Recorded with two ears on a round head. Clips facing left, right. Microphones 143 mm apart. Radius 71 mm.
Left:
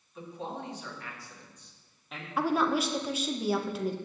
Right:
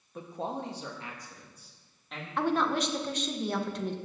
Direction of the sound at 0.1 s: 45° right (ahead or behind).